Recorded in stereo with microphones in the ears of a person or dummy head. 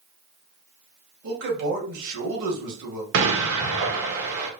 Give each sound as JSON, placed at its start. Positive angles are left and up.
{"t": 1.2, "sound": "a man speaking", "side_deg": -75, "distance_m": 2.0}
{"t": 3.1, "sound": "an explosion", "side_deg": -70, "distance_m": 1.2}